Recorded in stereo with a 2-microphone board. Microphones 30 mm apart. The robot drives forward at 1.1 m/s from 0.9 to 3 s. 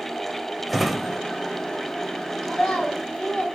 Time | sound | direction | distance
0.7 | a drawer | centre (ahead or behind) | 0.6 m
2.4 | a child speaking | 30° left (ahead or behind) | 2.5 m